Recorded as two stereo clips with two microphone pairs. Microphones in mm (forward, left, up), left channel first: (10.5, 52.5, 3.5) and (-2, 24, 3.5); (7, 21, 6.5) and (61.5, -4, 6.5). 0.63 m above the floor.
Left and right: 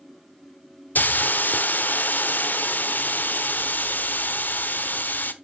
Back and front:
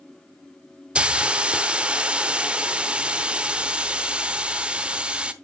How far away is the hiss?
About 0.9 m.